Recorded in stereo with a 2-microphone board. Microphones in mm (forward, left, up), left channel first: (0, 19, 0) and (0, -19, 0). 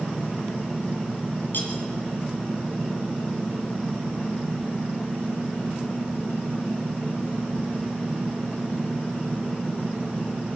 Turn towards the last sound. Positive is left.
turn(degrees=60)  # may be behind; listen again after turning